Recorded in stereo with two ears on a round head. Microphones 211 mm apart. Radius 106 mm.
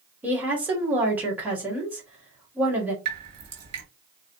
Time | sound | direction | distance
0.2 | a woman speaking | 10° right (ahead or behind) | 1.3 m
3.0 | dripping | 70° right (ahead or behind) | 1.9 m